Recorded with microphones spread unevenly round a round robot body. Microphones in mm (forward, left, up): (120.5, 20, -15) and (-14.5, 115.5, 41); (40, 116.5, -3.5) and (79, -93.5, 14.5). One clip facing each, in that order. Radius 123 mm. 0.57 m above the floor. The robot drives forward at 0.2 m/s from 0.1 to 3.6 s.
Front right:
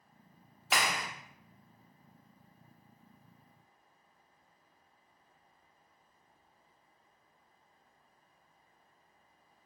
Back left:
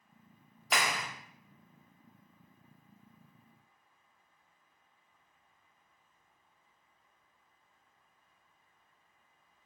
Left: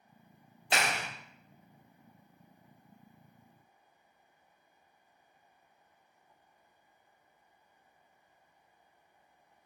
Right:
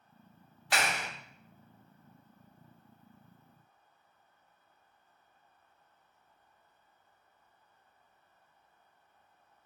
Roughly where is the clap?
Ahead left.